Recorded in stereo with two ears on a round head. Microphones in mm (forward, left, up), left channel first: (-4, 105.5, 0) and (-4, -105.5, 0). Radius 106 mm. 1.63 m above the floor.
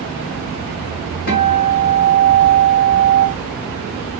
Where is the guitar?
50° left (ahead or behind), 2 m.